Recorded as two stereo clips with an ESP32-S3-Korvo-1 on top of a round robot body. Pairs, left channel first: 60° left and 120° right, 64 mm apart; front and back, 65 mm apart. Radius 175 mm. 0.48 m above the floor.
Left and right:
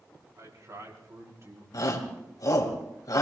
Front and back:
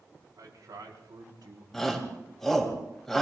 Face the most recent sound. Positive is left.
turn(degrees=85)